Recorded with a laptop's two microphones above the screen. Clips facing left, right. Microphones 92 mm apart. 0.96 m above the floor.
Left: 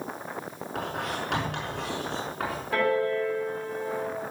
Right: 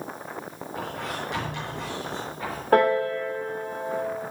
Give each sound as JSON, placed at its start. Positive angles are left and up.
{"t": 0.8, "sound": "writing", "side_deg": 85, "distance_m": 6.5}
{"t": 2.7, "sound": "a piano", "side_deg": -55, "distance_m": 3.0}